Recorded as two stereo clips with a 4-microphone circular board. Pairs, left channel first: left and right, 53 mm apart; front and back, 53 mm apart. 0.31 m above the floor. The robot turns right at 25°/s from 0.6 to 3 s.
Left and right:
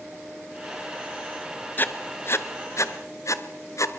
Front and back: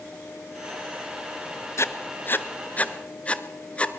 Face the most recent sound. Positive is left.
turn(degrees=70)